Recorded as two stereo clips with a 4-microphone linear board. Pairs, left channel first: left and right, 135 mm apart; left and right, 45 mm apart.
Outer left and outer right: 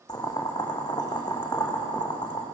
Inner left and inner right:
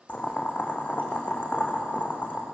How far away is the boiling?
About 4 m.